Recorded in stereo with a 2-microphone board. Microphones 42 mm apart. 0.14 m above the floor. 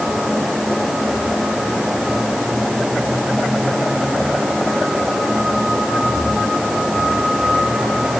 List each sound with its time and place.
Only background noise.